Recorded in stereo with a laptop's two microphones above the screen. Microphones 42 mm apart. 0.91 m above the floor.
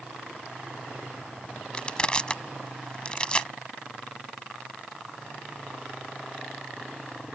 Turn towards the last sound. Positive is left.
turn(degrees=25)  # may be behind; listen again after turning